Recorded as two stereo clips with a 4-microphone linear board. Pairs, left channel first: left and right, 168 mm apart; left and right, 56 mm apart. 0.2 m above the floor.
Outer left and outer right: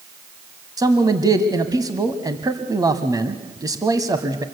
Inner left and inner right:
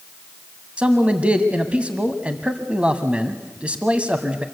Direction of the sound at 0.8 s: 20° right (ahead or behind).